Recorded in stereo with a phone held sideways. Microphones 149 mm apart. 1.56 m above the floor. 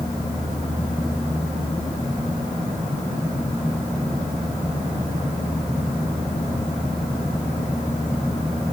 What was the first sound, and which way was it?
Only background noise.